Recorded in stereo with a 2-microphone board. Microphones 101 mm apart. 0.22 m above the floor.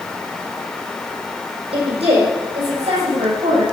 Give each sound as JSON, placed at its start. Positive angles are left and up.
{"t": 1.7, "sound": "a woman speaking", "side_deg": -65, "distance_m": 7.0}